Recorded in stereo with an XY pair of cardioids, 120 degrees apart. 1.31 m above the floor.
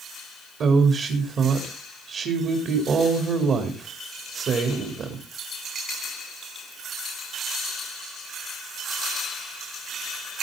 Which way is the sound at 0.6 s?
50° right.